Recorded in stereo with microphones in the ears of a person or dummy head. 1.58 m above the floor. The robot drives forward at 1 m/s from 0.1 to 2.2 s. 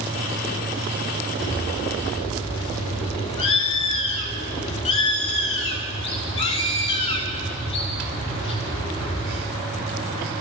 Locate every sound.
1.4 s a bird: 35° left (ahead or behind), 1.4 m; by 9.5 s 30° left (ahead or behind), 1.8 m